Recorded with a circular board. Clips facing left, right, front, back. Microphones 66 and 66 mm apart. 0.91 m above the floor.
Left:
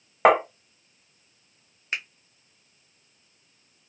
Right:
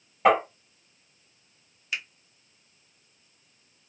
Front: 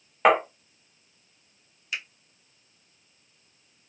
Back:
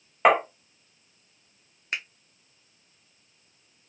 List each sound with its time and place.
0.2 s tapping: 95° left, 1.4 m
1.9 s a finger snap: 140° left, 0.7 m